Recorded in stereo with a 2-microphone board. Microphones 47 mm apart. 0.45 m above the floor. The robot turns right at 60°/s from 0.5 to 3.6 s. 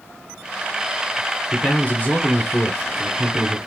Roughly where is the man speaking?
Left.